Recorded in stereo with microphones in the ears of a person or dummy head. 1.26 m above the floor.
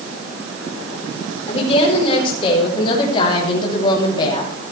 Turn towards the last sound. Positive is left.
turn(degrees=25)  # may be behind; listen again after turning